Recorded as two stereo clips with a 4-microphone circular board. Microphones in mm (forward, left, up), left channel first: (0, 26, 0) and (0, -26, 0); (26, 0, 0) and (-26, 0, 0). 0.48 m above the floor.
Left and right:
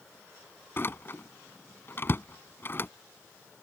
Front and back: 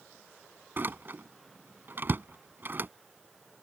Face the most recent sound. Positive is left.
turn(degrees=135)